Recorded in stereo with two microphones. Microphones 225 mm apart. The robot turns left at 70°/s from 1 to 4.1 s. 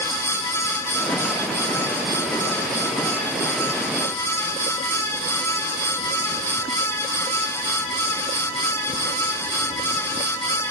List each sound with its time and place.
Only background noise.